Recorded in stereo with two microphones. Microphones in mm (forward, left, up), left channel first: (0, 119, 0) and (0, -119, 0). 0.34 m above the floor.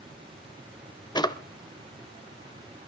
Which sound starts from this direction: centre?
A drawer, at 1.1 s.